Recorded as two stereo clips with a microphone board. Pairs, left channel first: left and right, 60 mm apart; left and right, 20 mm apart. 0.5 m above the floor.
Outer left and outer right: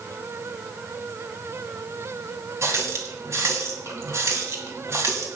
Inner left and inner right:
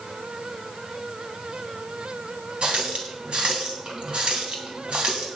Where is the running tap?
50° right (ahead or behind), 2.5 m.